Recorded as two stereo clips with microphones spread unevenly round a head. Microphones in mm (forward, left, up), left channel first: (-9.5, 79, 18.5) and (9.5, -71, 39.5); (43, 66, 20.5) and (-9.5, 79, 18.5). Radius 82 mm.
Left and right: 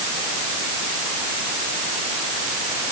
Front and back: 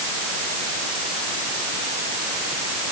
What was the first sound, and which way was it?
Only background noise.